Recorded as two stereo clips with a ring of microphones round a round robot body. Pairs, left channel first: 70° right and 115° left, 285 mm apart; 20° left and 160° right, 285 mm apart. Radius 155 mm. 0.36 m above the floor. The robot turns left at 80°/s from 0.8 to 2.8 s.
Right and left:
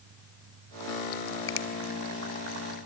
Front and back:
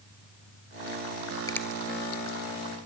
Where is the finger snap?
50° right, 1.1 m; by 1.7 s 65° right, 1.1 m.